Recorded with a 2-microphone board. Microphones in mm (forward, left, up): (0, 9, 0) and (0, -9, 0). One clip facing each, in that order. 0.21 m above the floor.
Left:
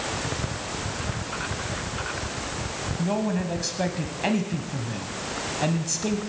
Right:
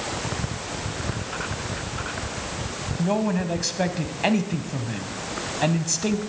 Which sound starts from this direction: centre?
A man speaking, at 3.0 s.